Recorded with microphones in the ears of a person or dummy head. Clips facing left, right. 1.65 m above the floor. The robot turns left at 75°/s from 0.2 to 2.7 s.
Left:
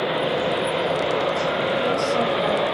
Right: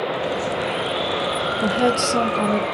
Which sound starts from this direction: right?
A woman speaking, at 1.6 s.